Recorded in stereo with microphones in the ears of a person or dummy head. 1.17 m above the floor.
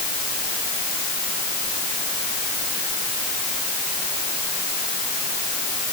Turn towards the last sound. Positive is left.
No sound to turn to.